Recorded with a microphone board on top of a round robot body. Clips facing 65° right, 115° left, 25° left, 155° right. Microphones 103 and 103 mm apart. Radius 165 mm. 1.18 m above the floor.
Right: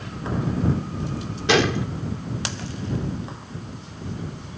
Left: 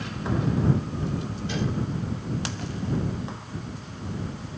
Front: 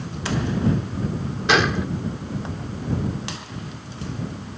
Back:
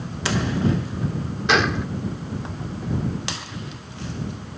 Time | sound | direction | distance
1.5 | a gunshot | 65° right | ?